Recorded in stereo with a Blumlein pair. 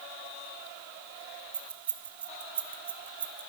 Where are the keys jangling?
65° right, 1.0 m.